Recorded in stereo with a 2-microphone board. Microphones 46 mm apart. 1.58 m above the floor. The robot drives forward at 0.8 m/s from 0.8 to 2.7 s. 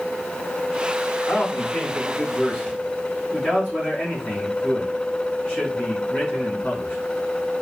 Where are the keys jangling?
No keys jangling in this recording.